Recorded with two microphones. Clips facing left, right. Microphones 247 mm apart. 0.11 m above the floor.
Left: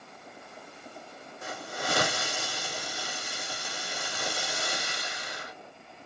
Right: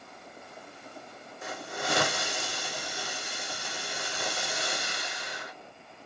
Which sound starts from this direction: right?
A hiss, at 1.4 s.